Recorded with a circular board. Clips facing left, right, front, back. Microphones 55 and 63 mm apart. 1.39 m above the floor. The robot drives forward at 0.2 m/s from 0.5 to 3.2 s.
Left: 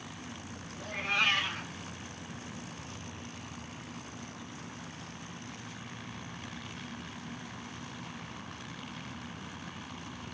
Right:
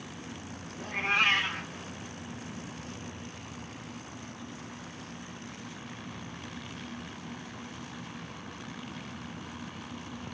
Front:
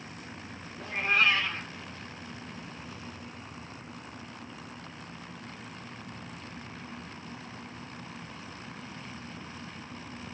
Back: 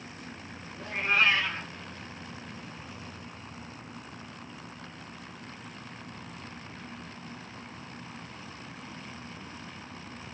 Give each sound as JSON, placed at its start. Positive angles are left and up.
{"t": 0.8, "sound": "a cat meowing", "azimuth_deg": -90, "distance_m": 1.9}